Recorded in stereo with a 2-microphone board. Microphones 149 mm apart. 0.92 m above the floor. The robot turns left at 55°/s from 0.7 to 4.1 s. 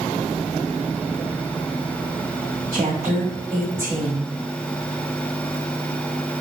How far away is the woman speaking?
About 3.5 m.